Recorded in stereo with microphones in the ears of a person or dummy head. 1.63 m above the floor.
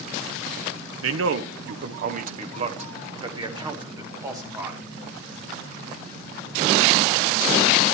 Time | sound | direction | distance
1.0 | a man speaking | 85° right | 1.1 m